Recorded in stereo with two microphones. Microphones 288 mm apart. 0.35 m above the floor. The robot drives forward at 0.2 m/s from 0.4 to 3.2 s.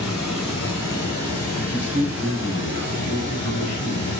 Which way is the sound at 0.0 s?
60° left (ahead or behind).